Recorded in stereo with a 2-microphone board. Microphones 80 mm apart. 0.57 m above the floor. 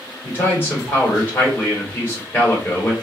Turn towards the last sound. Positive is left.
turn(degrees=25)  # may be behind; listen again after turning